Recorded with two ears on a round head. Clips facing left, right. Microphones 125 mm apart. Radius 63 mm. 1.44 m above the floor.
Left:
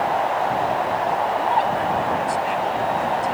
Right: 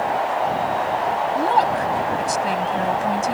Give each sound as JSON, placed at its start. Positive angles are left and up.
{"t": 1.4, "sound": "a woman speaking", "side_deg": -50}